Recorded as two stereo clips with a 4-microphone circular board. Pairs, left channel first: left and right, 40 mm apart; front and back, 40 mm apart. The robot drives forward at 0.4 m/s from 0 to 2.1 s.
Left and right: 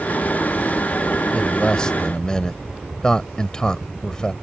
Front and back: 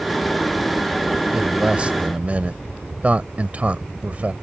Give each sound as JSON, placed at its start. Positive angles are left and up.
{"t": 1.3, "sound": "a man speaking", "azimuth_deg": 130}